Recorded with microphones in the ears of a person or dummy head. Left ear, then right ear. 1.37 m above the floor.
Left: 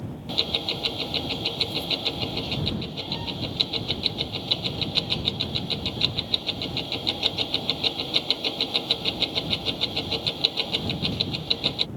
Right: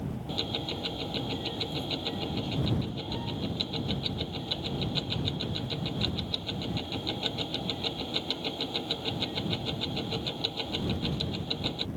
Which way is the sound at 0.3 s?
30° left (ahead or behind).